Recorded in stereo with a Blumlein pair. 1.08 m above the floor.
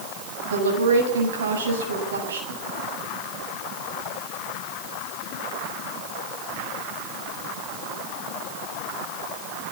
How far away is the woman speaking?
About 7.5 m.